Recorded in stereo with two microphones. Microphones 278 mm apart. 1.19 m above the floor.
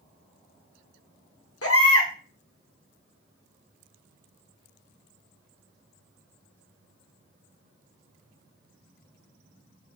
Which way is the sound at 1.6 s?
55° left (ahead or behind).